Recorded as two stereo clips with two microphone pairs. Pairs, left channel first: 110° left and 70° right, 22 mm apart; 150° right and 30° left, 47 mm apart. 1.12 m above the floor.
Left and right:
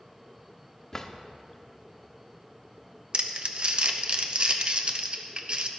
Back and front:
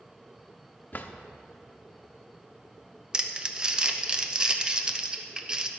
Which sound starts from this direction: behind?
A drawer, at 0.9 s.